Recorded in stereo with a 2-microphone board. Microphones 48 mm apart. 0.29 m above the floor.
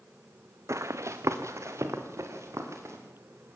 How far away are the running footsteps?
About 1.2 m.